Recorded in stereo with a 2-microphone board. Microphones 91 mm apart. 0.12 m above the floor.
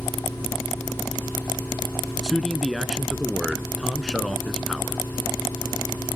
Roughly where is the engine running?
Right.